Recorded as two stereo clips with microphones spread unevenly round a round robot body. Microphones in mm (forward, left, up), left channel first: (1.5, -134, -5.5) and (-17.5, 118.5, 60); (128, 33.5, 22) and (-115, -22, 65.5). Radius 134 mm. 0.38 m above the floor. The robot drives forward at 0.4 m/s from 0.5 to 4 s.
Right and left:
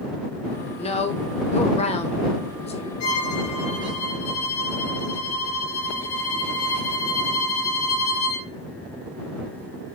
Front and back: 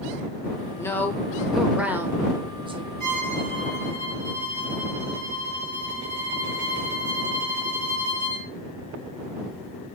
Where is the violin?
110° right, 3.5 m; by 8.5 s 115° right, 3.5 m.